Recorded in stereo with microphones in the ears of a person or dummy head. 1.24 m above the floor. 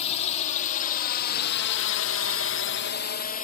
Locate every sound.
0.0 s a drone: 35° left (ahead or behind); by 3.4 s 40° left (ahead or behind)